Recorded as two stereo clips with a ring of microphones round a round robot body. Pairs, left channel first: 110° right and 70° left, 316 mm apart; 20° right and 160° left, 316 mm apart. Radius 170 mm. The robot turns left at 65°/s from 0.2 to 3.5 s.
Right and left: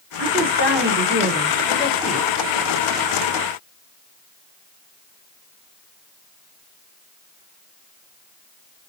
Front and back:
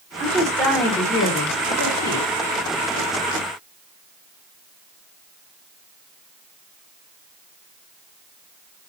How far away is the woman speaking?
About 1.1 m.